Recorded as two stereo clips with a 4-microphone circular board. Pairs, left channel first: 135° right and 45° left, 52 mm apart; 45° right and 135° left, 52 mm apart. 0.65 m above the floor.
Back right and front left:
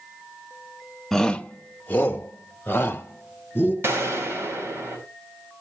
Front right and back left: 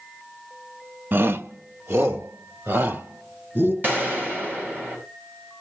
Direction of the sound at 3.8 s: 85° left.